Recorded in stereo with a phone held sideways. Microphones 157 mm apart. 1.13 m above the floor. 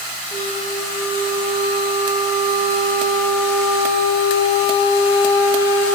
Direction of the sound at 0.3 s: 25° left (ahead or behind).